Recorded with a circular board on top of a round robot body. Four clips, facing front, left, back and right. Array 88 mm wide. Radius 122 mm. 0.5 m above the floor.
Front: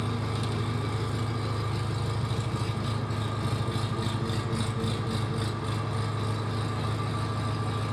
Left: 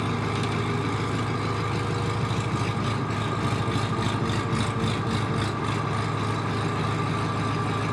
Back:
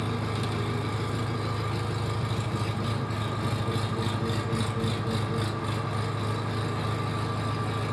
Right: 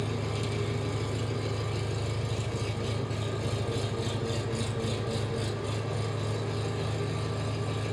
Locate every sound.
0.0 s an engine running: 95° left, 1.4 m